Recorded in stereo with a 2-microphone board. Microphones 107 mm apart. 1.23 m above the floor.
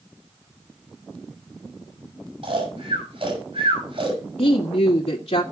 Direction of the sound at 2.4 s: 65° right (ahead or behind).